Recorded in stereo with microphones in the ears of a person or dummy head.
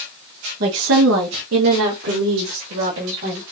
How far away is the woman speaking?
About 0.7 m.